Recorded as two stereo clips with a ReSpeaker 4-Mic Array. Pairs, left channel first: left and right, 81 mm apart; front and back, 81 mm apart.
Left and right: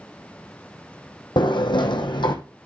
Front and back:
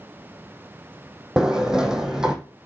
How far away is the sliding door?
About 1.4 m.